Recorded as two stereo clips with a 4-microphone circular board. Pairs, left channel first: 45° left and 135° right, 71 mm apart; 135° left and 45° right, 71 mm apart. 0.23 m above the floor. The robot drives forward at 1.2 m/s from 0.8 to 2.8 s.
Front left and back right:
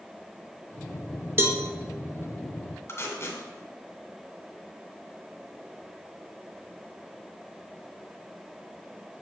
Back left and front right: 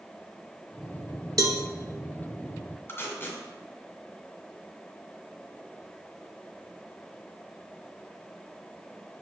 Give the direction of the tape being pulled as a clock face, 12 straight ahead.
9 o'clock.